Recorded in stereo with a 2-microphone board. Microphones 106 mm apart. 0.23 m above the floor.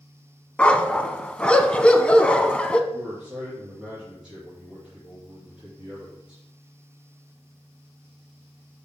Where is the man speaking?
5° right (ahead or behind), 3.5 m.